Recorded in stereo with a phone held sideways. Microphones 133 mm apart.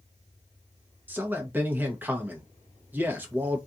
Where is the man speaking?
15° right (ahead or behind), 0.9 m.